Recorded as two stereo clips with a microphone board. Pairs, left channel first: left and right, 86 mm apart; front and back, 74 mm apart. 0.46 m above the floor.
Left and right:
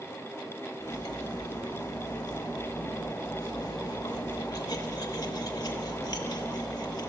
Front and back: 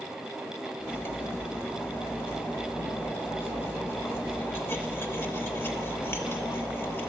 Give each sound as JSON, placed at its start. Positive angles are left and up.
{"t": 0.8, "sound": "cutlery clinking", "azimuth_deg": 55, "distance_m": 0.7}